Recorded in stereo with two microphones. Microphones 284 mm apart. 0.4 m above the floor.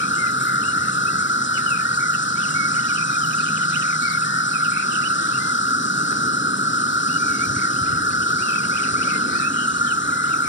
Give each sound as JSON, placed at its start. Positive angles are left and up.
{"t": 0.0, "sound": "an insect", "side_deg": 40}